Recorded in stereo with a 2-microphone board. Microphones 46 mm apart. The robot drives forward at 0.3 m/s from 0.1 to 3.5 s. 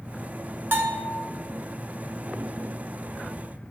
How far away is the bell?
About 0.6 m.